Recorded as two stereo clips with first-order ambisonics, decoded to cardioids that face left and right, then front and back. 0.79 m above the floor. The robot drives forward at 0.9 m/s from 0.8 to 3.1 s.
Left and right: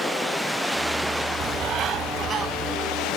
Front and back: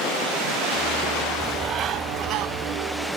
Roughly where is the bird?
Right.